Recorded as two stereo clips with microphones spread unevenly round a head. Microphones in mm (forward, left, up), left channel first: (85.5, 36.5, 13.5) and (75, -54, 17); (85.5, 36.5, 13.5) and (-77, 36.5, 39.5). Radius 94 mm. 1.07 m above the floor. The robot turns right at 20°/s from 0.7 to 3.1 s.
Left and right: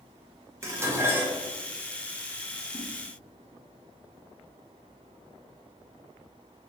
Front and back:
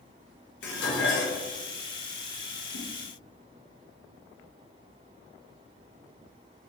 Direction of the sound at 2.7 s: 15° left.